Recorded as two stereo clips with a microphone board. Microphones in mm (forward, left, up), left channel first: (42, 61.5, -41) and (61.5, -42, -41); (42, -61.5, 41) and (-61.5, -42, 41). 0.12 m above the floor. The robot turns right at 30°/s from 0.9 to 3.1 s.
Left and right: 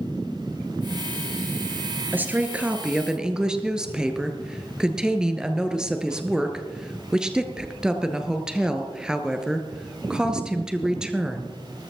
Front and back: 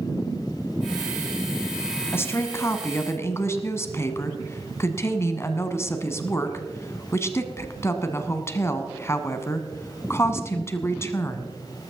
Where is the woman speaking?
35° right, 1.3 m; by 11.6 s 5° right, 1.3 m.